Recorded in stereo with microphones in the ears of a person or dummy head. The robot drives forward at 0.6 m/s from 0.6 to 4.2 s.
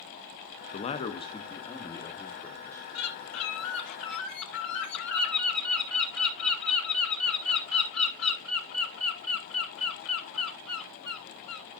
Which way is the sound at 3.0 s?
80° left.